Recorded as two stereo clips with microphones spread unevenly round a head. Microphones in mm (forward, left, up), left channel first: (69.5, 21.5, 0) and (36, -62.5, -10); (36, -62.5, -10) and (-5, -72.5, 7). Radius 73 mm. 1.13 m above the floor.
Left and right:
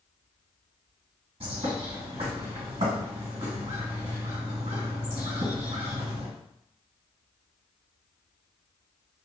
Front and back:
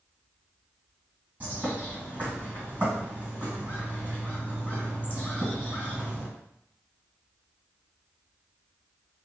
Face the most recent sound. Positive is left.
turn(degrees=-135)